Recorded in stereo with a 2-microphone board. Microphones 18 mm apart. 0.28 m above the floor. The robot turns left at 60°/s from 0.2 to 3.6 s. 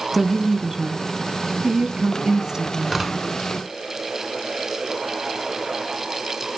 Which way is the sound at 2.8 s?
10° right (ahead or behind).